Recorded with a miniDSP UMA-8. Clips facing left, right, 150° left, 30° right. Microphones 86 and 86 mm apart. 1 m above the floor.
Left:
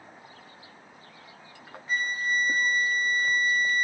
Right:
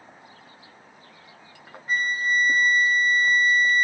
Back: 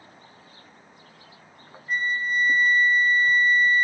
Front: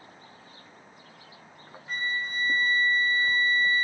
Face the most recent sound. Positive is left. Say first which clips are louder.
# right 4 dB, back 6 dB
turn(degrees=-50)